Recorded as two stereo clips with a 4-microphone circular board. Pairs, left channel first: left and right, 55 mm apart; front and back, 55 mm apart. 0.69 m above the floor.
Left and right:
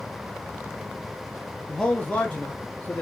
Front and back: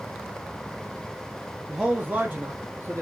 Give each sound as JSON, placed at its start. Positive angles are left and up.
{"t": 1.7, "sound": "a man speaking", "azimuth_deg": 125, "distance_m": 0.6}